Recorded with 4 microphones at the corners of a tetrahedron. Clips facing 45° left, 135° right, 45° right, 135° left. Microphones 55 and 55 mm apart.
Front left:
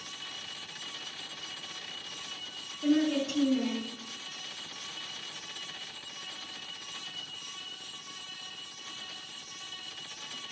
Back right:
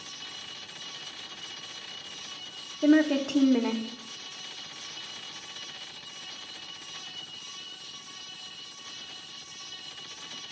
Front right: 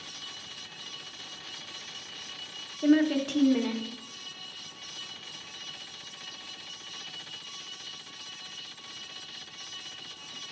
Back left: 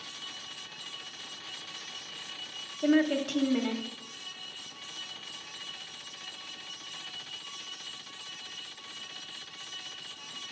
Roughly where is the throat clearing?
No throat clearing in this recording.